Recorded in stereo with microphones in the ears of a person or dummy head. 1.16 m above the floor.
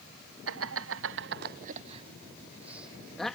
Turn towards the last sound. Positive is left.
turn(degrees=5)  # may be behind; listen again after turning